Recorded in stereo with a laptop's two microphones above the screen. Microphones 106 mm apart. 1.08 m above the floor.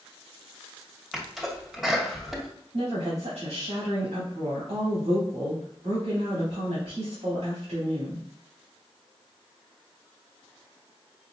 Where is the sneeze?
Centre (ahead or behind), 1.6 m.